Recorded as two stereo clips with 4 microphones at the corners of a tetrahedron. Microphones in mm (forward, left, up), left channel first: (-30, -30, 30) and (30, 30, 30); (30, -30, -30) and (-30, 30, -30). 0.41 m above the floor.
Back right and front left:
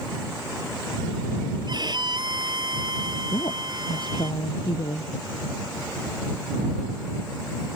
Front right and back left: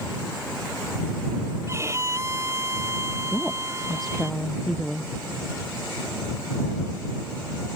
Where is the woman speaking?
130° right.